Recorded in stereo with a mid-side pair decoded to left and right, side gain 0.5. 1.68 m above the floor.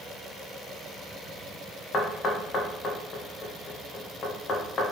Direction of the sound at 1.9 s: 45° left.